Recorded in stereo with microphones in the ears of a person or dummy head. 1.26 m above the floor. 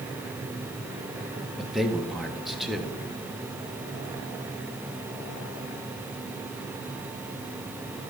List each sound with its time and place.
1.6 s a man speaking: centre (ahead or behind), 0.9 m